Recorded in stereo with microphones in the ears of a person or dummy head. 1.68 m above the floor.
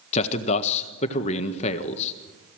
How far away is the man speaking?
About 1.4 m.